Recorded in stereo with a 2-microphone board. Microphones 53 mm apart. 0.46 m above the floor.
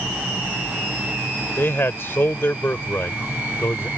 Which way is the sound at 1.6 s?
50° left (ahead or behind).